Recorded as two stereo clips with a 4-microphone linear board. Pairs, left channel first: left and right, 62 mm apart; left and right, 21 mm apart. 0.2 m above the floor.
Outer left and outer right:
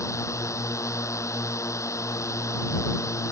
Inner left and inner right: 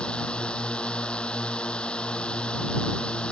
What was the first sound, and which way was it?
A drone, 55° left (ahead or behind).